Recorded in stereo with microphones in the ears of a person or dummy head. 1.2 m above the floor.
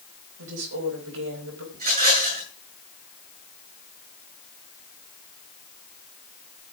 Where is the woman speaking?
75° right (ahead or behind), 5 m.